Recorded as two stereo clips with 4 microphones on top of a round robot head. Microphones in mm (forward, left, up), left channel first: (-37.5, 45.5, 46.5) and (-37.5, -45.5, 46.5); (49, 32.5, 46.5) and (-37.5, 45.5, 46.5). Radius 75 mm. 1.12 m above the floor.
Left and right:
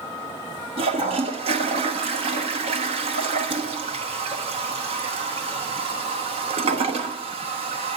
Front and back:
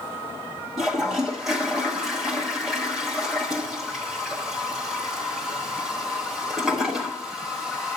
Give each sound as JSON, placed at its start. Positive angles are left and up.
{"t": 0.8, "sound": "a toilet flushing", "azimuth_deg": -100, "distance_m": 1.0}